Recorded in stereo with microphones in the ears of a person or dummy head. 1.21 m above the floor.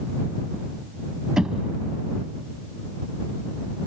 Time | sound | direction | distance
1.4 | knocking | 10° right (ahead or behind) | ?